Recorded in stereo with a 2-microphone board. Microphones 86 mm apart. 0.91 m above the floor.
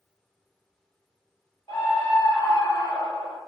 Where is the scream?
80° left, 4 m.